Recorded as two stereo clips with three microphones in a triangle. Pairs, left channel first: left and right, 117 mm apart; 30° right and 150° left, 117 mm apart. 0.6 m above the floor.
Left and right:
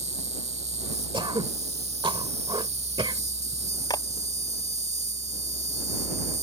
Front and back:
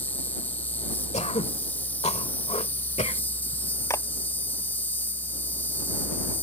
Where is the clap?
35° left.